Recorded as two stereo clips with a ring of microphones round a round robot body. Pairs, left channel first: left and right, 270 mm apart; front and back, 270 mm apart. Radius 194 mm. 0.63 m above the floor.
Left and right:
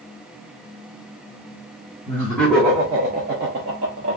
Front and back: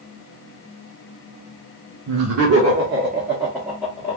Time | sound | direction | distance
2.1 | laughter | 165° left | 1.0 m